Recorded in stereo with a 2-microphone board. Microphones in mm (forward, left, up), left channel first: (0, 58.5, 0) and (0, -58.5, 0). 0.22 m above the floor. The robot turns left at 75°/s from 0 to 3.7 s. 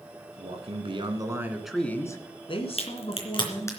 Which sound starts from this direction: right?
A man speaking, at 0.4 s.